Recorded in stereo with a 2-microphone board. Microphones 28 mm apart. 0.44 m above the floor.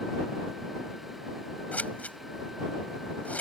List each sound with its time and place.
1.7 s scissors: 65° left (ahead or behind)